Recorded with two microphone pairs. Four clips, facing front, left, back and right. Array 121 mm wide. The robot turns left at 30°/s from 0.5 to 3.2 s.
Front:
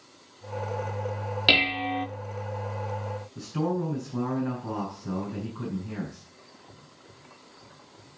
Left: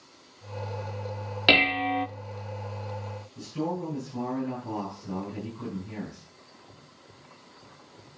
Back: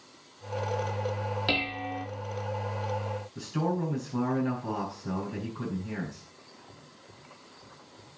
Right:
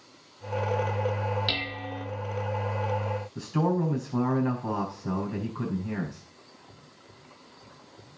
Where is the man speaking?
95° right, 5 m.